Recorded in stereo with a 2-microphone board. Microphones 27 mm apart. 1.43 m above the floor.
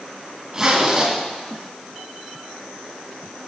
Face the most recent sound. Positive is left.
turn(degrees=-25)  # may be behind; listen again after turning